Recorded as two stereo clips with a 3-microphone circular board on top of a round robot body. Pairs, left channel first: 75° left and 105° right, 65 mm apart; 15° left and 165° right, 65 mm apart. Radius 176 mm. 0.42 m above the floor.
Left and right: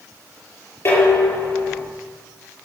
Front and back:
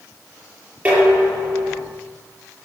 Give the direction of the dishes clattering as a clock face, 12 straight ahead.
8 o'clock.